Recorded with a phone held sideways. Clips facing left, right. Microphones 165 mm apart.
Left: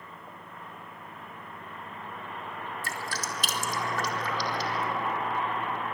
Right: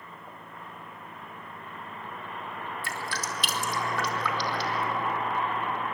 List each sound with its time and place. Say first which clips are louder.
2.8 s dripping: right 1 dB; 45° left (ahead or behind), 3 m